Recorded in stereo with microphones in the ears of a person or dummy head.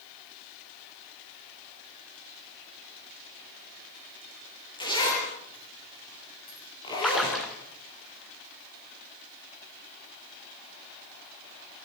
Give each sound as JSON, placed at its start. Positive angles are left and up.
{"t": 4.8, "sound": "a zipper", "side_deg": 30, "distance_m": 9.5}
{"t": 7.0, "sound": "a splash", "side_deg": 5, "distance_m": 3.0}